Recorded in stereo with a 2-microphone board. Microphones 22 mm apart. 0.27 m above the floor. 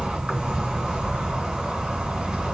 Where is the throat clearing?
No throat clearing in this recording.